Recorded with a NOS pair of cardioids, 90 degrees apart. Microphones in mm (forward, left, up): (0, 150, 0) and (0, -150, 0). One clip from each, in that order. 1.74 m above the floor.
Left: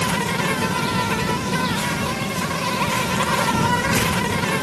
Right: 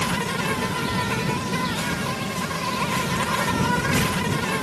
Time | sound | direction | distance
0.0 | an insect | 25° left | ?